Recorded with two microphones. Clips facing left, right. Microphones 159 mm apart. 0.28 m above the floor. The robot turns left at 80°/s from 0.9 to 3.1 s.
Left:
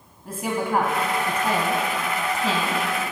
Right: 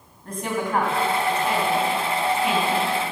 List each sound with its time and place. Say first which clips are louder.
0.2 s a woman speaking: left 1 dB; 5° left (ahead or behind), 1.9 m; by 2.8 s 15° left (ahead or behind), 1.9 m